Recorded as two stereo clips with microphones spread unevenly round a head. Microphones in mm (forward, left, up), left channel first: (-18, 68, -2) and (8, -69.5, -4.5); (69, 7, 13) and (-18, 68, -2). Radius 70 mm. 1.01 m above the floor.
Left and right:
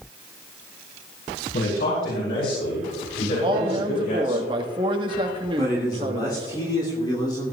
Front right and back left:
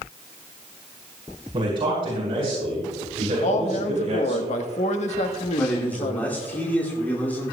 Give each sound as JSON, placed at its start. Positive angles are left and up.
{"t": 1.5, "sound": "a man speaking", "azimuth_deg": 105, "distance_m": 5.5}
{"t": 3.4, "sound": "a man speaking", "azimuth_deg": -20, "distance_m": 1.3}
{"t": 5.6, "sound": "a man speaking", "azimuth_deg": 40, "distance_m": 2.5}